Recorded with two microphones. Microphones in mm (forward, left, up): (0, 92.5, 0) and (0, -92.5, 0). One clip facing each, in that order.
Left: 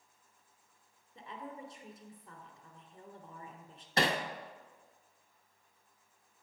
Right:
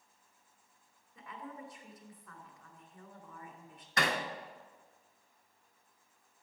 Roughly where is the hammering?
Left.